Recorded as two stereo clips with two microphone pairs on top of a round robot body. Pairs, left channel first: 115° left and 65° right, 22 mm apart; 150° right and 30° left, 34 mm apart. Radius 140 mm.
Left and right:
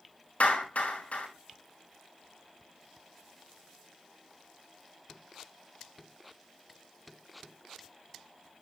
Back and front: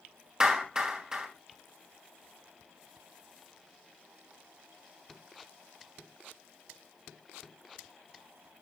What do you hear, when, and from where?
0.4 s a clap: 100° left, 5 m